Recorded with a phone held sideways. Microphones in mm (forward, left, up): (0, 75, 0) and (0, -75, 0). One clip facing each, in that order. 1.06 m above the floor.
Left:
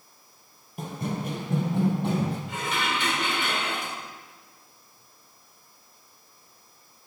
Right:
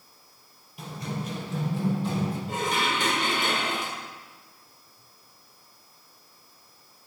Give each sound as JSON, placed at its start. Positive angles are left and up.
{"t": 0.8, "sound": "running footsteps", "side_deg": 50, "distance_m": 1.8}
{"t": 2.5, "sound": "dishes clattering", "side_deg": -45, "distance_m": 2.5}